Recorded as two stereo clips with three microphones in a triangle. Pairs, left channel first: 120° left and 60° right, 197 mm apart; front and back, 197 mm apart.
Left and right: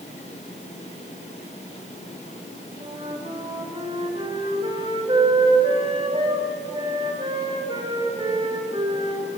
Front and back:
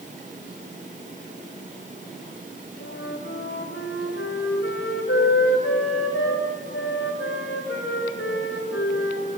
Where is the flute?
5° left, 2.5 m.